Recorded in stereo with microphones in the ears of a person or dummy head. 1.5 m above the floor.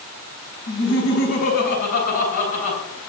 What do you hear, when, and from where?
0.7 s laughter: 65° left (ahead or behind), 7.5 m; by 2.8 s 50° left (ahead or behind), 8.5 m